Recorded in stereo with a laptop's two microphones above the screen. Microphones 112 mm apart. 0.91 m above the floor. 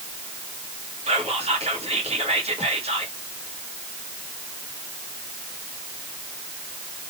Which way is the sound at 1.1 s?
70° right (ahead or behind).